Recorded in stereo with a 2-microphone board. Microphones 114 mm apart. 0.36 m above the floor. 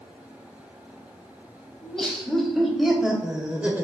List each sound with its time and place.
1.8 s laughter: 5° left (ahead or behind), 2.5 m; by 3.8 s 15° right (ahead or behind), 1.3 m